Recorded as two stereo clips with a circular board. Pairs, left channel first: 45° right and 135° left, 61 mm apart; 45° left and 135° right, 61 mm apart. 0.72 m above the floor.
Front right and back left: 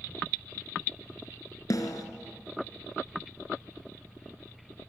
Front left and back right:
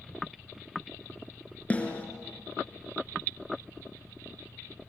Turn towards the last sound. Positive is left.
turn(degrees=-20)